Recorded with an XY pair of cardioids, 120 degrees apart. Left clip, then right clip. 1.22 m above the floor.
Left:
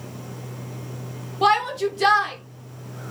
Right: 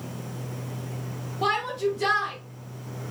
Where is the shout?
45° left, 1.3 m.